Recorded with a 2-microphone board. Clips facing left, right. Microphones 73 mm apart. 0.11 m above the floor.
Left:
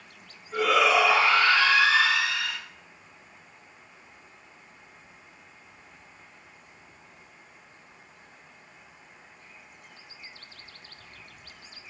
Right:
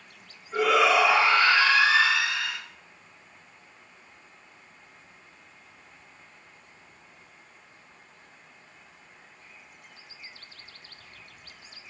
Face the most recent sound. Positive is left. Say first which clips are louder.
# right 1 dB
turn(degrees=-15)  # may be behind; listen again after turning